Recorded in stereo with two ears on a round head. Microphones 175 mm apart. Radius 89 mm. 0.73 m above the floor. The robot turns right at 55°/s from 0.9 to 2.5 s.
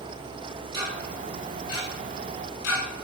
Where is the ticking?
20° right (ahead or behind), 5.5 m; by 2.8 s 65° left (ahead or behind), 5.5 m.